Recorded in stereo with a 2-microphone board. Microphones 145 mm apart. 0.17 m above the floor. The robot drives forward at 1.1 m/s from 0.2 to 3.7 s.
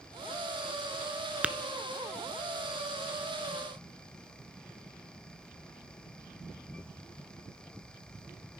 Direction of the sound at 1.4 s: 10° right (ahead or behind).